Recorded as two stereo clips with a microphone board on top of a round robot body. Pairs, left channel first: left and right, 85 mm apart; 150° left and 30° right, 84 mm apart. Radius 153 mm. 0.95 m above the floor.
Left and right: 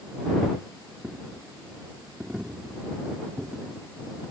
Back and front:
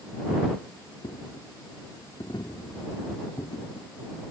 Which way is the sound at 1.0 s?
170° right.